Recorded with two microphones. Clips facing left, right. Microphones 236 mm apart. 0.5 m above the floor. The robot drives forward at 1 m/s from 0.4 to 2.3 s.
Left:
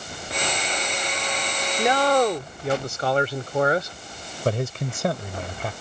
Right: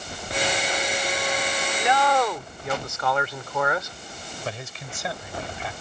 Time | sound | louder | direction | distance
1.8 | a man speaking | left 4 dB | 40° left (ahead or behind) | ?
4.5 | a man speaking | left 12 dB | 55° left (ahead or behind) | ?